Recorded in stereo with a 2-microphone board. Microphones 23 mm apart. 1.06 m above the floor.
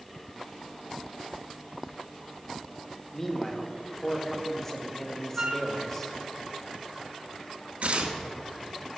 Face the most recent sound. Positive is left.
turn(degrees=-65)  # may be behind; listen again after turning